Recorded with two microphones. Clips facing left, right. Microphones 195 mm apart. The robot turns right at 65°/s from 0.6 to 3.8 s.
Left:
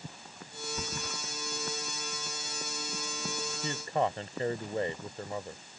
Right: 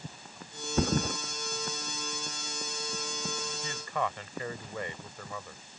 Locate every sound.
0.8 s a thud: 70° right (ahead or behind); by 1.2 s 40° right (ahead or behind)
3.6 s a man speaking: 35° left (ahead or behind)